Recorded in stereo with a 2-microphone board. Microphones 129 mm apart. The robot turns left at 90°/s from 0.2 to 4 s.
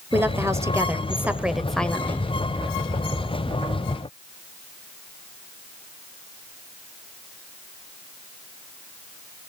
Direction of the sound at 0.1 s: 15° right (ahead or behind).